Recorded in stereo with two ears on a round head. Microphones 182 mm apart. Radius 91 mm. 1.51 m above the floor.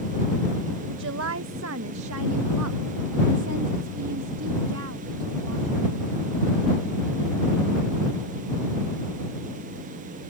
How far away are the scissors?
No scissors in this recording.